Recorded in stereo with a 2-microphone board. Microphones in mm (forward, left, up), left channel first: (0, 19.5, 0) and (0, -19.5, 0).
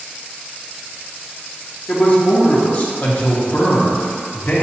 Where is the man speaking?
40° left (ahead or behind), 0.8 m.